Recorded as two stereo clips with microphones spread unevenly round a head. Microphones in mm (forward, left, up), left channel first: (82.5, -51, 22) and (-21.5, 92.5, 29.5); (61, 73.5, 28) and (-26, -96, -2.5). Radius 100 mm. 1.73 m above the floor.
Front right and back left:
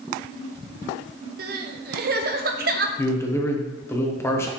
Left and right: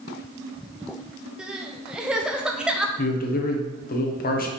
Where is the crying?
150° left, 0.6 m.